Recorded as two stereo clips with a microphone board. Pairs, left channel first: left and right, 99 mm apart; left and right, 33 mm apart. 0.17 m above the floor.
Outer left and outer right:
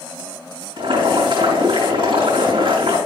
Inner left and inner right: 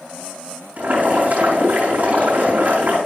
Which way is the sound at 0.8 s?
60° right (ahead or behind).